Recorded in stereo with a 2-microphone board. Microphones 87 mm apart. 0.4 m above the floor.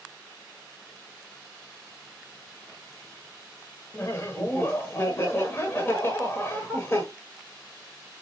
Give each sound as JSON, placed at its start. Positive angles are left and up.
{"t": 3.9, "sound": "laughter", "side_deg": 35, "distance_m": 1.1}